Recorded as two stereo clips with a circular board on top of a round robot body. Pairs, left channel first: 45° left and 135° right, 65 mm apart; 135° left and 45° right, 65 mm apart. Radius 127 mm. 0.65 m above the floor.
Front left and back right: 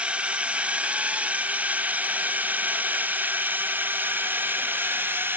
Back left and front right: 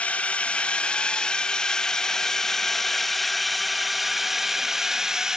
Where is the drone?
175° left; by 5.4 s 120° right.